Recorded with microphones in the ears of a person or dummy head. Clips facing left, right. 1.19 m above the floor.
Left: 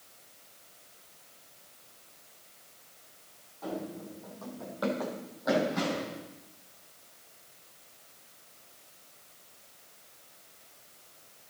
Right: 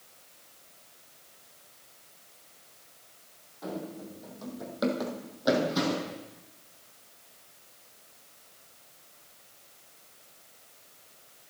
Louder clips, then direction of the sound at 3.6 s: Even; 15° right (ahead or behind).